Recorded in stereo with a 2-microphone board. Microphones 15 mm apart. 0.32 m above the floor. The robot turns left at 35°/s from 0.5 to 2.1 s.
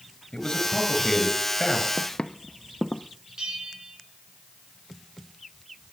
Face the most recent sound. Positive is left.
turn(degrees=-75)  # may be behind; listen again after turning